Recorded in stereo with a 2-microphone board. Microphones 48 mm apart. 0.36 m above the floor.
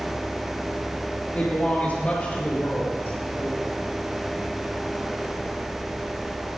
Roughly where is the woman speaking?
Left.